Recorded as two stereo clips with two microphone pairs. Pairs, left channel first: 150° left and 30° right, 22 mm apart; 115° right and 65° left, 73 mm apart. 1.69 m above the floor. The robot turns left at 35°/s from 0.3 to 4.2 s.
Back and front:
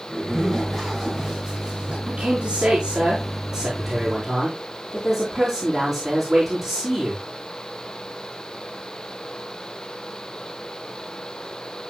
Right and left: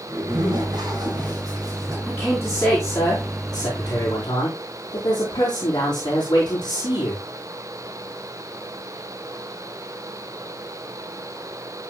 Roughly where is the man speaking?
Ahead.